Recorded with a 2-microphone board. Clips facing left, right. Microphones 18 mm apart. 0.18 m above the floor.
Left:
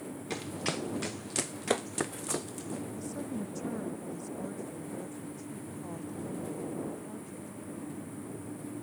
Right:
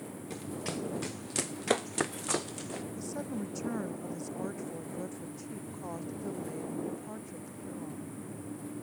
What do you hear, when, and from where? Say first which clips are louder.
0.3 s running footsteps: left 3 dB; 40° left (ahead or behind); by 2.8 s 25° right (ahead or behind)
3.0 s a woman speaking: even; 25° right (ahead or behind)